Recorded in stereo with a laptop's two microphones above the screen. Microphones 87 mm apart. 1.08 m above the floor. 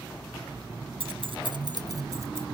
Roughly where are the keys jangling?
Right.